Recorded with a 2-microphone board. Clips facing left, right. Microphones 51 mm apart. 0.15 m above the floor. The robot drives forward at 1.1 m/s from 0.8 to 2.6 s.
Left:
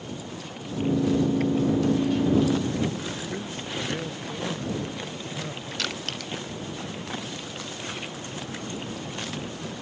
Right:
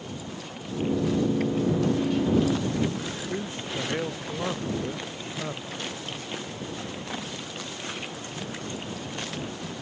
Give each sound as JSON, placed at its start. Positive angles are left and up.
{"t": 3.3, "sound": "a man speaking", "side_deg": -25}
{"t": 5.8, "sound": "crushing", "side_deg": 85}